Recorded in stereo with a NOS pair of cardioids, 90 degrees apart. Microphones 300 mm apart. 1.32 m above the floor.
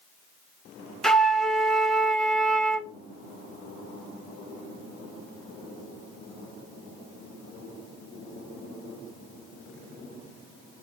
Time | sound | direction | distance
1.0 | a flute | straight ahead | 0.7 m